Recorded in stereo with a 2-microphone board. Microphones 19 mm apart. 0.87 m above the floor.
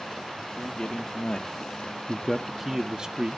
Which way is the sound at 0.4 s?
70° left (ahead or behind).